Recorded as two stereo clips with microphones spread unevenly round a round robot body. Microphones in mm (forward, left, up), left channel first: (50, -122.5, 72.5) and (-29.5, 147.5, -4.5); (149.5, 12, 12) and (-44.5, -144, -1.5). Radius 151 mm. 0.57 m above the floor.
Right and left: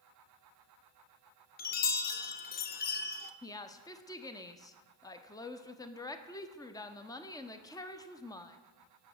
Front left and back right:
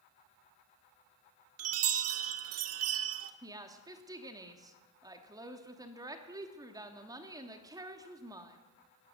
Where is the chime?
140° right, 1.0 m.